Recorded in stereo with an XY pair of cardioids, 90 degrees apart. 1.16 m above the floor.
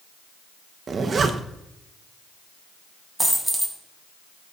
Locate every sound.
0.9 s a zipper: 45° right, 1.3 m
3.2 s a dropped coin: 10° right, 3 m